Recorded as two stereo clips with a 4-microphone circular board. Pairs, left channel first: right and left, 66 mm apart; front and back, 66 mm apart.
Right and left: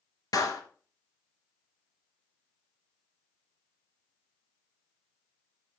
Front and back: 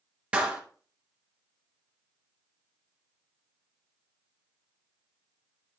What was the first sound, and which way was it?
A clap, 110° right.